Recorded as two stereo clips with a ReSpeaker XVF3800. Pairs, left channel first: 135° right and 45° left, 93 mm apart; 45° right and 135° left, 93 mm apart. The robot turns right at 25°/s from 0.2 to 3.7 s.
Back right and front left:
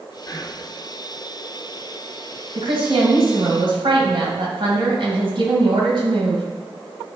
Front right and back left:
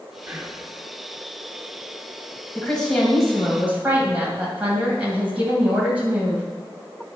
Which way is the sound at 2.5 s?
35° left.